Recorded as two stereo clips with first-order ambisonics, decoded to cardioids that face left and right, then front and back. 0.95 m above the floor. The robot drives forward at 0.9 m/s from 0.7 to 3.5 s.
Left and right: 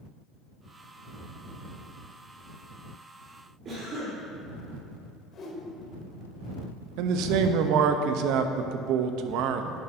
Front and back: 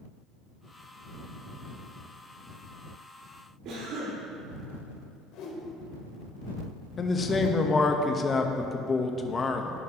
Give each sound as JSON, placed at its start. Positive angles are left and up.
{"t": 3.6, "sound": "a cough", "azimuth_deg": -145, "distance_m": 3.0}
{"t": 5.3, "sound": "a whoosh", "azimuth_deg": 30, "distance_m": 1.5}
{"t": 7.0, "sound": "a man speaking", "azimuth_deg": -70, "distance_m": 0.6}